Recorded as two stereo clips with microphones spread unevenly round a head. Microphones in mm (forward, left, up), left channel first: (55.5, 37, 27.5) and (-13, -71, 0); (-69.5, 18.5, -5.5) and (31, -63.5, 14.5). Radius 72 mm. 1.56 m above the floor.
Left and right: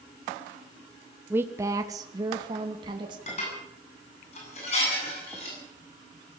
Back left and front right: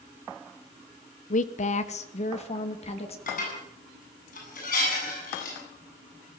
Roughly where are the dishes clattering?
Left.